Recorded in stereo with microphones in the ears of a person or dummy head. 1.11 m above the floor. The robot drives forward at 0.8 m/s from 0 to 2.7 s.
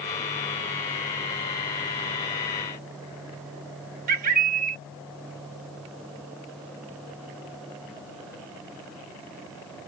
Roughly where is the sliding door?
I don't hear a sliding door.